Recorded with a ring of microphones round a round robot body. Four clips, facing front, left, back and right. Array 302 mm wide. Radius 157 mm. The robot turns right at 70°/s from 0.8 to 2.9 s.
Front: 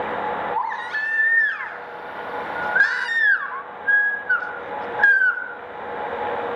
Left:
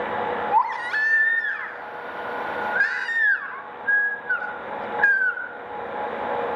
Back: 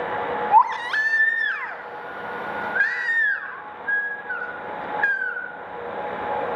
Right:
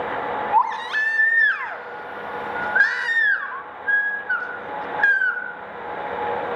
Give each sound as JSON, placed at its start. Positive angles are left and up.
{"t": 0.5, "sound": "a baby crying", "azimuth_deg": -175, "distance_m": 3.5}